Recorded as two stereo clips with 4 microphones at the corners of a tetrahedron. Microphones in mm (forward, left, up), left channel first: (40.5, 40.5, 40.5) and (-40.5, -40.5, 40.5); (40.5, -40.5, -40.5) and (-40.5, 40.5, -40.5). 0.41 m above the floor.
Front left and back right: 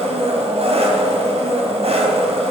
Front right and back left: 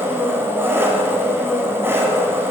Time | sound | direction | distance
0.0 | an engine running | 155° right | 2.0 m